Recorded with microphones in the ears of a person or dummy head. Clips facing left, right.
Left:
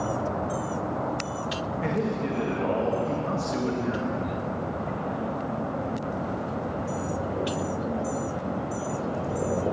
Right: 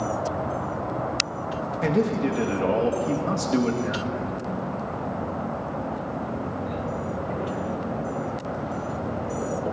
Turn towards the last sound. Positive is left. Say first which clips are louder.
# right 6 dB
turn(degrees=-55)  # may be behind; listen again after turning